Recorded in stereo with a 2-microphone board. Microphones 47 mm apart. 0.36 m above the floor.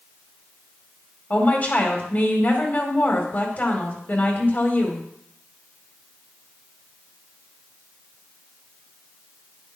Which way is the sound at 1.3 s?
35° left (ahead or behind).